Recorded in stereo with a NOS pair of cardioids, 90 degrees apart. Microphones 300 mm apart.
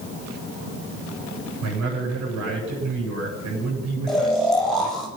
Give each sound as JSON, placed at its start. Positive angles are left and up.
{"t": 1.6, "sound": "a man speaking", "azimuth_deg": -70, "distance_m": 9.0}
{"t": 4.1, "sound": "snoring", "azimuth_deg": 0, "distance_m": 5.5}